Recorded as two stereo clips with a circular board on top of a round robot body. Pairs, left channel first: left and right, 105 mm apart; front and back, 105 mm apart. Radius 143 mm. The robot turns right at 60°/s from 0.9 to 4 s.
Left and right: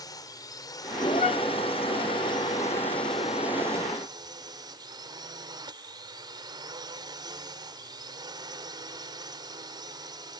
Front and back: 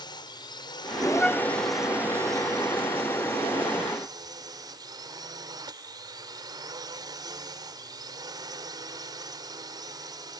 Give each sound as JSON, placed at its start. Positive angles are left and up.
{"t": 0.0, "sound": "a drone", "azimuth_deg": 40}
{"t": 1.2, "sound": "a flute", "azimuth_deg": 80}